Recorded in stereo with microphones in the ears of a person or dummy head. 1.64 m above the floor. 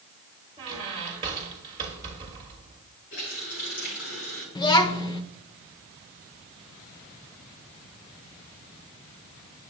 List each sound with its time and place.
0.6 s a squeak: 25° right (ahead or behind), 1.4 m
3.1 s a running tap: 70° left (ahead or behind), 5 m
4.5 s a child speaking: 20° left (ahead or behind), 0.7 m